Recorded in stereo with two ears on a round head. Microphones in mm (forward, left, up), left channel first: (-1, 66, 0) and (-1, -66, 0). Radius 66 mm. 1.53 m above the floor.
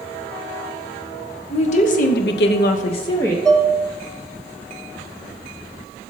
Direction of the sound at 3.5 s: 5° left (ahead or behind).